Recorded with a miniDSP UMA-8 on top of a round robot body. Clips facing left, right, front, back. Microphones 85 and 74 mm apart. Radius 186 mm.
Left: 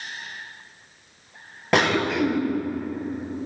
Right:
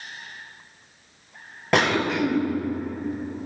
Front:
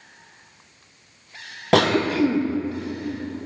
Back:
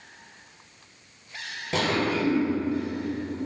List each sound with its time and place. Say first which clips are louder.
1.7 s a cough: left 1 dB, front 7 dB; straight ahead, 1.1 m